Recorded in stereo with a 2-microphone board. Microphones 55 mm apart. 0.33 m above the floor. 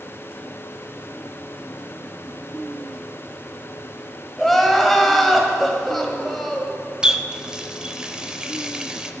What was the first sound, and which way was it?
Crying, 5° left (ahead or behind).